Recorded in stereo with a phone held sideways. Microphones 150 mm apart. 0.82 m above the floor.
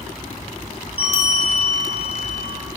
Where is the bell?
40° left (ahead or behind), 1.4 m.